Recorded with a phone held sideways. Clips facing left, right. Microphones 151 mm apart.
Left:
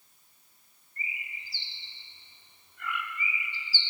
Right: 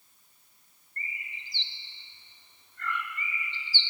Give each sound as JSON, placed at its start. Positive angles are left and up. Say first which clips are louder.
{"t": 1.0, "sound": "a bird", "louder": "left 1 dB", "side_deg": 10, "distance_m": 0.7}